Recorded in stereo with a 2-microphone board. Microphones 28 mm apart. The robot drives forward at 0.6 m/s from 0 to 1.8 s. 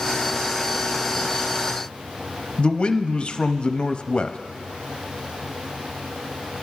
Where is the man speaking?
35° left (ahead or behind), 0.5 m.